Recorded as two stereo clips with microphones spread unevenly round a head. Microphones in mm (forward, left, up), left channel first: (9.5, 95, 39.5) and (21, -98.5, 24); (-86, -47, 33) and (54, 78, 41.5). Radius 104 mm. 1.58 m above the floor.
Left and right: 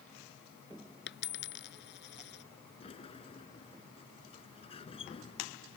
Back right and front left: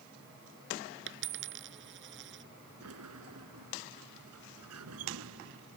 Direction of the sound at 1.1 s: 65° left.